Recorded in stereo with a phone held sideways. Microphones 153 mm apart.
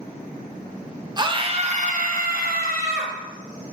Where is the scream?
30° right (ahead or behind), 1.0 m; by 3.1 s 85° right, 1.3 m.